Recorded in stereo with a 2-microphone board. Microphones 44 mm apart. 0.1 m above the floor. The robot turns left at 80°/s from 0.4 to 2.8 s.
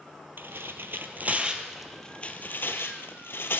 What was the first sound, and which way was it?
Tearing paper, 55° right (ahead or behind).